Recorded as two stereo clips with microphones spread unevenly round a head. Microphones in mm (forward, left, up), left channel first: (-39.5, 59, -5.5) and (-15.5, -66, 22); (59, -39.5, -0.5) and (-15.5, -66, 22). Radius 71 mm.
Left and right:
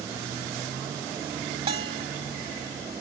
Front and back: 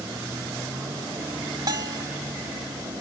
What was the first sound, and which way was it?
A bell, 125° right.